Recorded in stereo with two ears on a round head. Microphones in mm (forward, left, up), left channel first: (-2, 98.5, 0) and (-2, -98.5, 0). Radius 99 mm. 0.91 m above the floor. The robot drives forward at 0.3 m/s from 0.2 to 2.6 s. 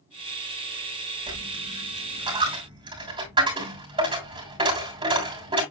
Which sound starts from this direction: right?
A dropped coin, at 1.3 s.